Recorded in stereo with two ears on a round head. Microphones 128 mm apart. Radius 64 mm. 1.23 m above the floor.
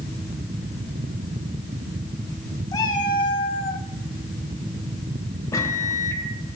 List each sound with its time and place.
2.7 s a cat meowing: 25° left (ahead or behind), 1.2 m; by 3.9 s 45° left (ahead or behind), 0.9 m
5.5 s a microwave: 25° left (ahead or behind), 1.3 m